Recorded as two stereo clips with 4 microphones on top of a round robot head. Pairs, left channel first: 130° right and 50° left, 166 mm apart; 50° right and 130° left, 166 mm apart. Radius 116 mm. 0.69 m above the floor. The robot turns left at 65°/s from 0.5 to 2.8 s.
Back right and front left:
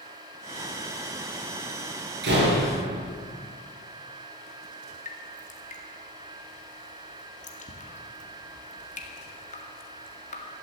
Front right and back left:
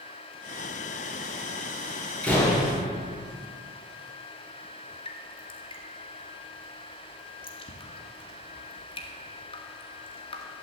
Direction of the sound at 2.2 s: 35° left.